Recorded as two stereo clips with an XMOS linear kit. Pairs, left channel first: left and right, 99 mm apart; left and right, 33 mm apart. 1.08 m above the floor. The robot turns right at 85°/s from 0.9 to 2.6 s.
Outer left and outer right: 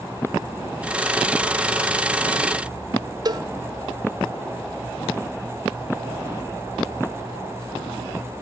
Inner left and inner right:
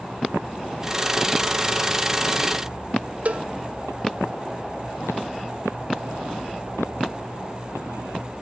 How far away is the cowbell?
About 0.8 m.